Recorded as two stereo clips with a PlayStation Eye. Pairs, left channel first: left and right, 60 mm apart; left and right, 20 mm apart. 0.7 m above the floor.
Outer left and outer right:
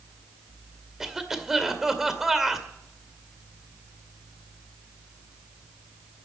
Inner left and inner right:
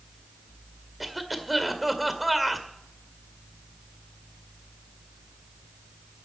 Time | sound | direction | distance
1.0 | a cough | 5° right (ahead or behind) | 2.0 m